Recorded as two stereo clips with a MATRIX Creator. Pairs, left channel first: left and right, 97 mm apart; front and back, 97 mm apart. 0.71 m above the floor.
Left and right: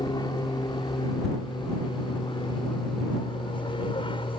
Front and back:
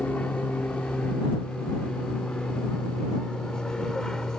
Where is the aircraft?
70° left; by 4.4 s 85° left.